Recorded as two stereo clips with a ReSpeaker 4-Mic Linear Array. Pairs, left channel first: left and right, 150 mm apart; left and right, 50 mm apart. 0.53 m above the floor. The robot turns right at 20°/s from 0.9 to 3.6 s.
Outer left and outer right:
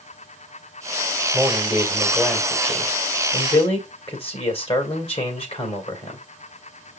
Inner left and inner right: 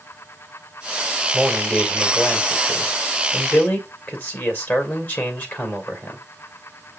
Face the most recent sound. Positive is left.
turn(degrees=50)